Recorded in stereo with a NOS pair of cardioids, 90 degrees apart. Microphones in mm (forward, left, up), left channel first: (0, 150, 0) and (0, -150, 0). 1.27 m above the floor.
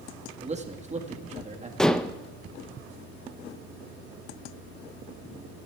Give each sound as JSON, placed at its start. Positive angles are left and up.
{"t": 0.4, "sound": "a man speaking", "azimuth_deg": -25, "distance_m": 2.0}
{"t": 1.8, "sound": "dishes clattering", "azimuth_deg": 0, "distance_m": 0.6}